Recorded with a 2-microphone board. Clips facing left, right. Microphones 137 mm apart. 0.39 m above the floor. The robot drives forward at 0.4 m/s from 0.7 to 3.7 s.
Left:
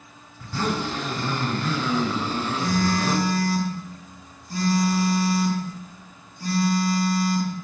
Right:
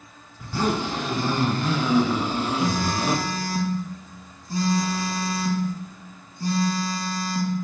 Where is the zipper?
10° right (ahead or behind), 2.5 m; by 3.2 s 15° right (ahead or behind), 1.5 m.